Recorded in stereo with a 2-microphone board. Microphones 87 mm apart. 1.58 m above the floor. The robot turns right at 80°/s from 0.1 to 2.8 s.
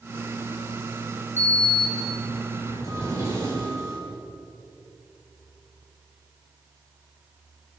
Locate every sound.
1.4 s a sliding door: 150° right, 6.5 m; by 4.0 s 35° right, 6.5 m